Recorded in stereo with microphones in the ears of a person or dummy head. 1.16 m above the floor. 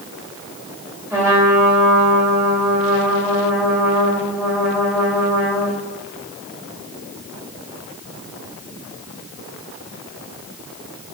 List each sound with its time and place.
1.1 s a trumpet: 15° right (ahead or behind), 2.5 m